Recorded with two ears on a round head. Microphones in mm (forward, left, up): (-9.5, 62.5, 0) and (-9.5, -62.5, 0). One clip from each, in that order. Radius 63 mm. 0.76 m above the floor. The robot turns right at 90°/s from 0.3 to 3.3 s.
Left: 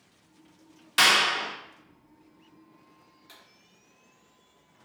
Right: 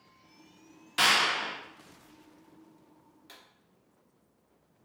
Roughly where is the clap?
Left.